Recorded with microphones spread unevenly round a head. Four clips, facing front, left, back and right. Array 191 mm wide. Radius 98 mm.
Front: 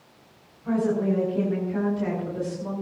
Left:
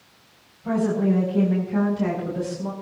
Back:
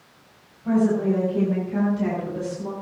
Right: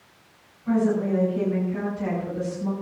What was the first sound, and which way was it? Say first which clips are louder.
A woman speaking: left 1 dB, back 3 dB; 115° left.